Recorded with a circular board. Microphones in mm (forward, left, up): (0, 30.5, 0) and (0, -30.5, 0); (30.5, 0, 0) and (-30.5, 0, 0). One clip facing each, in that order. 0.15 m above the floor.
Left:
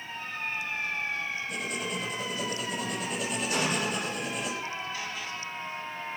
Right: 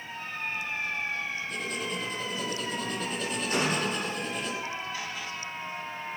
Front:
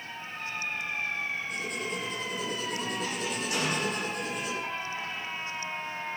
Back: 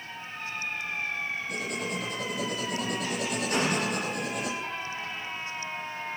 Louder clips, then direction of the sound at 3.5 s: Right 2 dB, back 3 dB; 135° right.